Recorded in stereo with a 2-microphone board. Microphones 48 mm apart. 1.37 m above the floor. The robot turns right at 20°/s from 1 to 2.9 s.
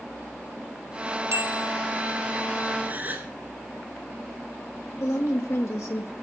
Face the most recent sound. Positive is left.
turn(degrees=80)